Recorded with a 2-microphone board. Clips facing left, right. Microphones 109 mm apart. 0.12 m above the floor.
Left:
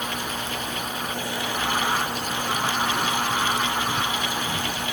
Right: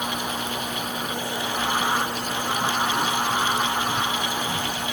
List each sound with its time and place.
Only background noise.